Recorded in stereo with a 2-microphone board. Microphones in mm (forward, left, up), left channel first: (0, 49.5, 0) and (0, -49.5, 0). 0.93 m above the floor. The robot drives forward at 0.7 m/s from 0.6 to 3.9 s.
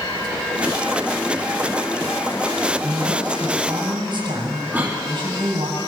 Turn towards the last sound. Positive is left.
turn(degrees=-15)  # may be behind; listen again after turning